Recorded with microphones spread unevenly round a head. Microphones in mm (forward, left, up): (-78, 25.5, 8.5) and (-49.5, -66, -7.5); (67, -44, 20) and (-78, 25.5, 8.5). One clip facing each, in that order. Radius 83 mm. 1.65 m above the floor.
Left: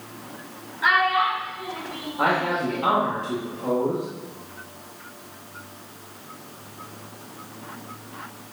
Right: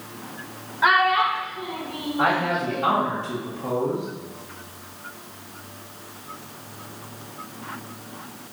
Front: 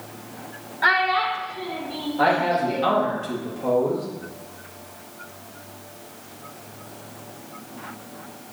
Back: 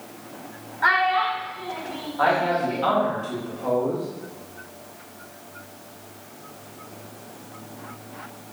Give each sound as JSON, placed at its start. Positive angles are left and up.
{"t": 0.8, "sound": "a child speaking", "azimuth_deg": -40, "distance_m": 0.9}
{"t": 2.2, "sound": "a man speaking", "azimuth_deg": 45, "distance_m": 2.0}